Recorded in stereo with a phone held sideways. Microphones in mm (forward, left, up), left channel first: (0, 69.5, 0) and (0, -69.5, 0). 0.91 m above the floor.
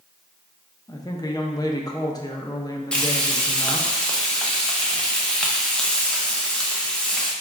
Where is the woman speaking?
25° left (ahead or behind), 0.5 m.